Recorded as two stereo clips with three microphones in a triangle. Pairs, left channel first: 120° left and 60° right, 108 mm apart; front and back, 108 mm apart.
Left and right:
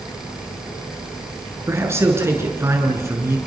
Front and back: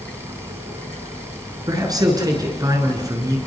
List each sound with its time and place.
1.7 s a man speaking: 125° right, 7 m